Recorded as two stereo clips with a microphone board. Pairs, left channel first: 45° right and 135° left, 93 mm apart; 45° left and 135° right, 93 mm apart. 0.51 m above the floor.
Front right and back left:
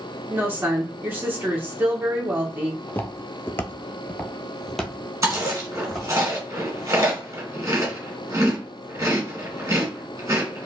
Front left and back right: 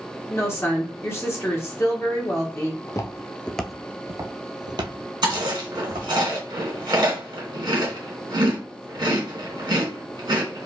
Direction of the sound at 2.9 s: 15° left.